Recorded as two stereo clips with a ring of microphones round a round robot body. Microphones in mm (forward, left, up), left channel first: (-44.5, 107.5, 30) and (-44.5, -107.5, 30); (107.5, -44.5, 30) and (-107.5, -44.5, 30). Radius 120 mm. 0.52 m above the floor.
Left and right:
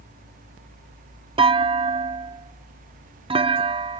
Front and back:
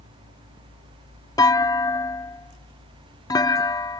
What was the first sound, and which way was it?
A clunk, 55° right.